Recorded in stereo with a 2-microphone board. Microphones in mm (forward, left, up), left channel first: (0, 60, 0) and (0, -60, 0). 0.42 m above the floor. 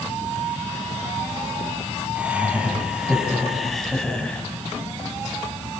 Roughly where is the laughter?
Centre.